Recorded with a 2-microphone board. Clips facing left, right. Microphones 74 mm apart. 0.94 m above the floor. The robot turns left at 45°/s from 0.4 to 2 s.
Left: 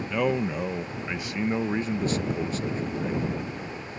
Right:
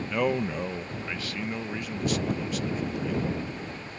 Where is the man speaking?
Straight behind; by 3.3 s 105° left.